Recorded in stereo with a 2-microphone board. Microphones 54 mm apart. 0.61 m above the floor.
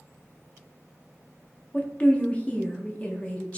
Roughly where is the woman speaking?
Left.